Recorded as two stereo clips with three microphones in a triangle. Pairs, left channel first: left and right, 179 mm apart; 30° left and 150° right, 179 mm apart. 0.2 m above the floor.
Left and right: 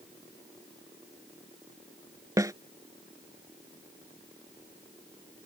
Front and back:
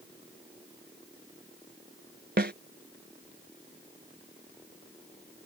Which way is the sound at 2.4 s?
160° right.